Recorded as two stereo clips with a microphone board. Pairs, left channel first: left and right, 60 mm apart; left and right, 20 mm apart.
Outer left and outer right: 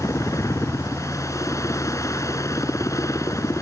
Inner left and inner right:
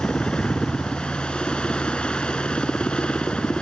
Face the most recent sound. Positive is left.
turn(degrees=65)  # may be behind; listen again after turning